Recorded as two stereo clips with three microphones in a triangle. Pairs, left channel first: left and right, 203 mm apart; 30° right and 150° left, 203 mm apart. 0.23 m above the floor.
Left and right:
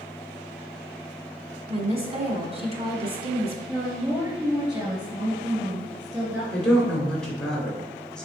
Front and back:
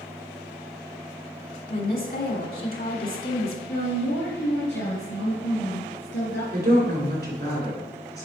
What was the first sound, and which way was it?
A woman speaking, 40° right.